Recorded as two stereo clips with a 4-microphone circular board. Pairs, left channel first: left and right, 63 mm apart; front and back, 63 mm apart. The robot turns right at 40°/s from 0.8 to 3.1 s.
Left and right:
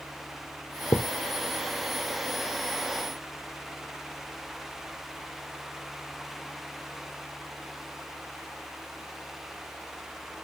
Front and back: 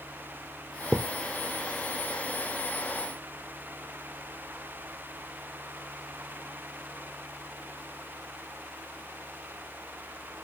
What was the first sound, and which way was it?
A thud, 100° left.